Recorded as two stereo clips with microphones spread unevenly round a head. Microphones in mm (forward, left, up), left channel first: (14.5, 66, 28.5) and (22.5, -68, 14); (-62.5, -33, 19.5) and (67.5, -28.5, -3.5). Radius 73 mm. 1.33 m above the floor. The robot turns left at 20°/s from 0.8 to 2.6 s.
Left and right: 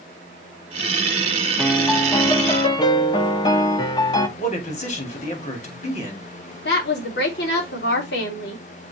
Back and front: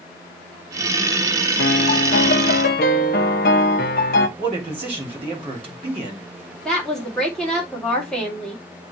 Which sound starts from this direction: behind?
A piano, at 1.6 s.